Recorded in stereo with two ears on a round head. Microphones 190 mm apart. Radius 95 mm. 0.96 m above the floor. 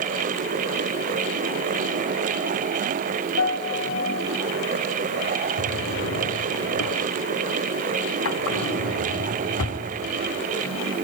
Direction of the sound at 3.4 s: 65° left (ahead or behind).